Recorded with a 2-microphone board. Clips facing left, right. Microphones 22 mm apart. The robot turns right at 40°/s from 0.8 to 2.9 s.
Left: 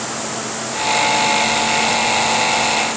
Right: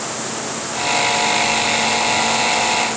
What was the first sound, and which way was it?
Only background noise.